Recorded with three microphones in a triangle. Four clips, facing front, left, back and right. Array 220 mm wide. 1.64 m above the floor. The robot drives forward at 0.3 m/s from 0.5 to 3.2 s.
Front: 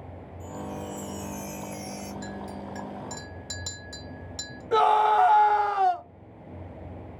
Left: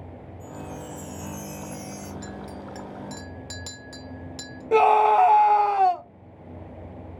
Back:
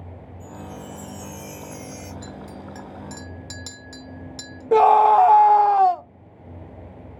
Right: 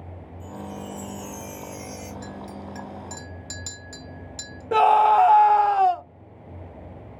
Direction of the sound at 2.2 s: 125° left.